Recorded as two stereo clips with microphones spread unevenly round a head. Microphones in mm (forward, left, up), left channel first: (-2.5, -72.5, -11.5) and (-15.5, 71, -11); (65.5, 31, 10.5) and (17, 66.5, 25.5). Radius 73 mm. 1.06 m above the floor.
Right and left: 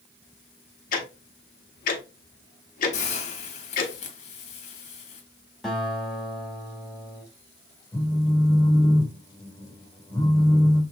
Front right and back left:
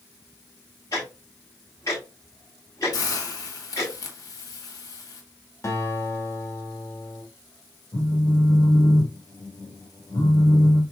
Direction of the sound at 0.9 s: 115° right.